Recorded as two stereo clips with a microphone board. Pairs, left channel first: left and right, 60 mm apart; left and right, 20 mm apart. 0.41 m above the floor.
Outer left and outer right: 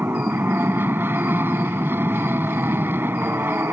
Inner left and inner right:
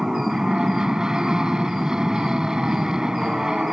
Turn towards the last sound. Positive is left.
turn(degrees=-40)  # may be behind; listen again after turning